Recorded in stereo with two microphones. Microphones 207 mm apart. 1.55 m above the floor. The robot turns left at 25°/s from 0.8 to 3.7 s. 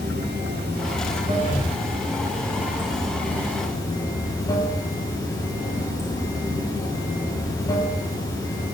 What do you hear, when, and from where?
0.0 s running water: 125° right, 3.5 m; by 8.8 s 165° left, 3.5 m
1.4 s breathing: 60° left (ahead or behind), 3 m; by 2.5 s 35° left (ahead or behind), 3 m